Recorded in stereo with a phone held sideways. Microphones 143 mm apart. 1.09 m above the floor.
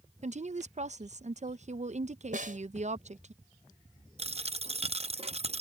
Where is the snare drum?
65° right (ahead or behind).